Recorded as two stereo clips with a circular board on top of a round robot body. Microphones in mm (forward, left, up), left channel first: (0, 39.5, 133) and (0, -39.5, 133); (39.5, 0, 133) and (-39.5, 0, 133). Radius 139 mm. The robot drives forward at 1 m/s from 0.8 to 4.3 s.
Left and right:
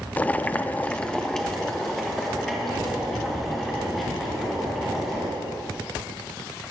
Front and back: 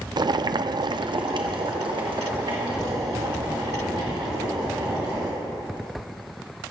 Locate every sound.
0.2 s boiling: 160° left, 0.5 m; by 5.3 s straight behind, 4 m